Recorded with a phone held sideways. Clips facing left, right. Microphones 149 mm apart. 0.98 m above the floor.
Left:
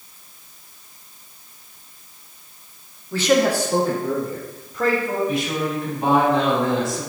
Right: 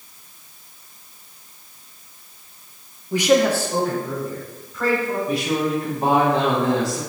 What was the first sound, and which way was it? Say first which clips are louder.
A man speaking: right 1 dB; 20° right (ahead or behind).